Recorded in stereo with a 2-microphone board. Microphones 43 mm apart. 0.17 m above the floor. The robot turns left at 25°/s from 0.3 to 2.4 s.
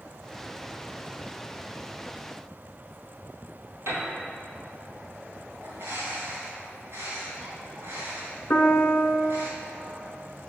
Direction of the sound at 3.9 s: 75° right (ahead or behind).